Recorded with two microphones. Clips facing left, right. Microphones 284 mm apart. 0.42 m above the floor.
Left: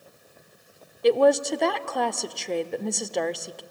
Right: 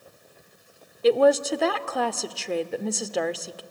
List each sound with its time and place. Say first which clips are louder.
1.0 s a woman speaking: even; centre (ahead or behind), 0.7 m